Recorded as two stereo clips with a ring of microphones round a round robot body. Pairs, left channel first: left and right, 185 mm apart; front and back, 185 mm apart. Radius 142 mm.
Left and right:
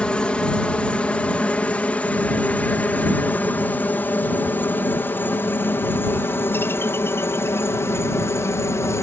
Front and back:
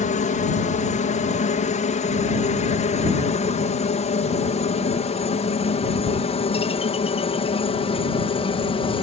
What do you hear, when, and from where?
0.0 s a helicopter: 10° left; by 9.0 s 25° left